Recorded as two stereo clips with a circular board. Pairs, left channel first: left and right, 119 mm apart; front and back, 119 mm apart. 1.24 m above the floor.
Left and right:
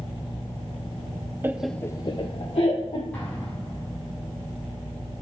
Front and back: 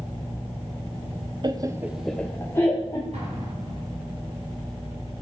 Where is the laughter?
155° right, 0.7 m; by 3.0 s 65° left, 1.7 m.